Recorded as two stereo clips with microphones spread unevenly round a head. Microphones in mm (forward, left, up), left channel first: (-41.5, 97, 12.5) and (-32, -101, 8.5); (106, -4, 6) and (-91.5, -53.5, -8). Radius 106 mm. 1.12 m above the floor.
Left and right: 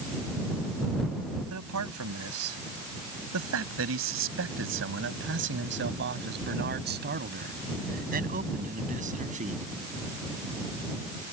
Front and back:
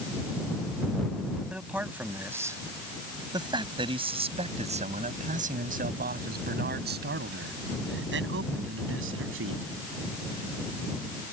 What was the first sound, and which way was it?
A man speaking, 80° right.